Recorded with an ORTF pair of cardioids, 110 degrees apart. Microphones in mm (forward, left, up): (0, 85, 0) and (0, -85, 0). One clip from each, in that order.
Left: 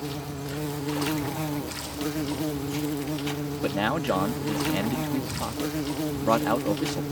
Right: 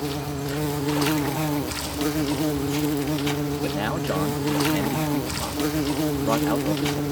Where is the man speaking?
10° left.